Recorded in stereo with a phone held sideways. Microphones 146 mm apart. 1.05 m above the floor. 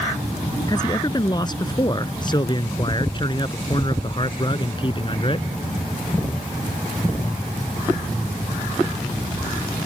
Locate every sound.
0.7 s a man speaking: 30° left (ahead or behind); by 5.5 s 35° left (ahead or behind)